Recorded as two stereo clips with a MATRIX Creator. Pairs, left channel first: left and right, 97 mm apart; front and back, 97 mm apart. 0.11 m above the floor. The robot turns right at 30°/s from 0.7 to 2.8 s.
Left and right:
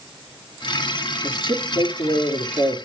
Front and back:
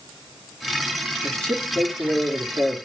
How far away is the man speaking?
About 2.5 m.